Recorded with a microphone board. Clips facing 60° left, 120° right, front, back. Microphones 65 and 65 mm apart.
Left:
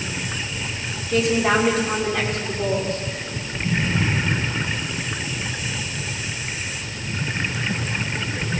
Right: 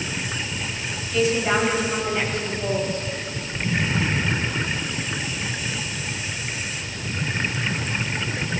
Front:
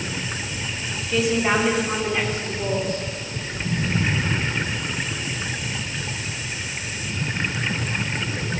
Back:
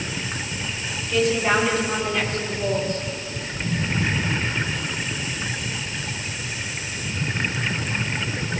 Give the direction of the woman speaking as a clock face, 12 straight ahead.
9 o'clock.